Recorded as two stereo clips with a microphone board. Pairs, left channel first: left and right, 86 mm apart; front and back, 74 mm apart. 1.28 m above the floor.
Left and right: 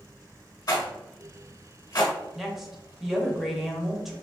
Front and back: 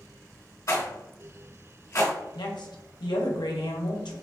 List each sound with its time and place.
0.7 s a rattle: 45° left, 0.9 m
2.4 s a woman speaking: 5° right, 0.7 m